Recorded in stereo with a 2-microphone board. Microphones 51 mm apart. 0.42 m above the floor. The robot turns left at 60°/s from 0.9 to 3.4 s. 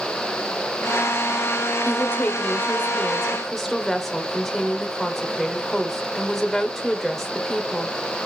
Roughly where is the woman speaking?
Left.